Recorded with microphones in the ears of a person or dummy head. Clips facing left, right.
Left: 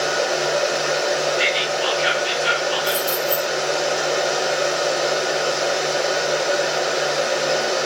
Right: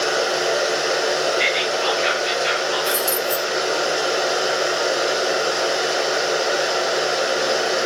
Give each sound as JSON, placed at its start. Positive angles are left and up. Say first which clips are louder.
{"t": 0.0, "sound": "a machine running", "louder": "even", "side_deg": -15, "distance_m": 0.9}
{"t": 1.4, "sound": "whispering", "louder": "even", "side_deg": 0, "distance_m": 1.1}
{"t": 2.9, "sound": "keys jangling", "louder": "even", "side_deg": -40, "distance_m": 1.0}